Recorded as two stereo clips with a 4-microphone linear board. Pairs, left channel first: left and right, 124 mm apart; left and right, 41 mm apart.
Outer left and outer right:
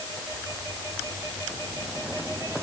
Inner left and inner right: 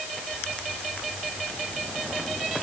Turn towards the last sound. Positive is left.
No sound to turn to.